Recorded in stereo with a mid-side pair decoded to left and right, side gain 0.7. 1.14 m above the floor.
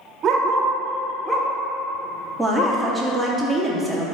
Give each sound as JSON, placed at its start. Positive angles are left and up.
{"t": 0.2, "sound": "a dog barking", "azimuth_deg": -40, "distance_m": 1.6}
{"t": 2.4, "sound": "a woman speaking", "azimuth_deg": 5, "distance_m": 2.5}